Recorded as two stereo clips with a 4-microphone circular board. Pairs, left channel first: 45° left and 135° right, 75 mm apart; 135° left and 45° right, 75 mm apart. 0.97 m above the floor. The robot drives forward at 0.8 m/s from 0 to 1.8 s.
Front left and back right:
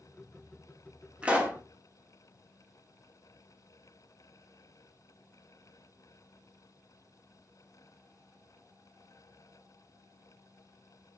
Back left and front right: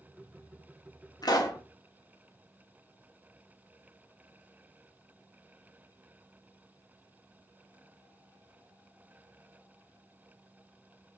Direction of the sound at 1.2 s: 150° left.